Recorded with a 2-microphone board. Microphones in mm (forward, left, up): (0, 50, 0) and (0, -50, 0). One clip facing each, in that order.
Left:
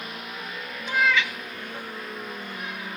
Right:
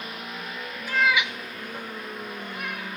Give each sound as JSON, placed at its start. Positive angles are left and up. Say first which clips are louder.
{"t": 0.9, "sound": "a cat meowing", "louder": "even", "side_deg": 20, "distance_m": 0.6}